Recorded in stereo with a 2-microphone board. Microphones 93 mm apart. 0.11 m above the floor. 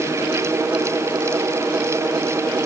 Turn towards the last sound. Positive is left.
No sound to turn to.